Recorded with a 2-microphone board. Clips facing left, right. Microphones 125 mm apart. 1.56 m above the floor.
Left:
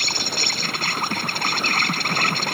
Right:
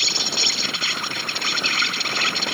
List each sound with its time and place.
0.0 s an insect: 50° left (ahead or behind)